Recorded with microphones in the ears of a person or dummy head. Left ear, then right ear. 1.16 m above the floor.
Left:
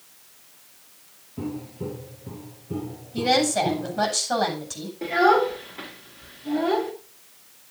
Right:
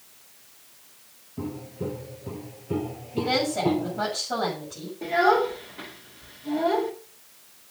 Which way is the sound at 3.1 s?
80° left.